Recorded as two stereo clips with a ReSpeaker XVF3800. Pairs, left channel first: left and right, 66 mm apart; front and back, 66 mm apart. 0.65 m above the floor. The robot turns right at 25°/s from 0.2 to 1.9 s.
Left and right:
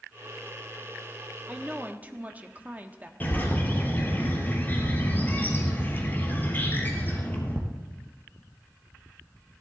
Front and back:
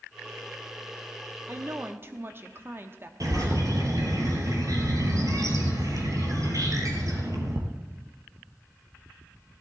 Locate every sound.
1.5 s a woman speaking: 155° right, 1.0 m; by 3.1 s 145° right, 1.0 m
3.2 s a bird: 150° left, 2 m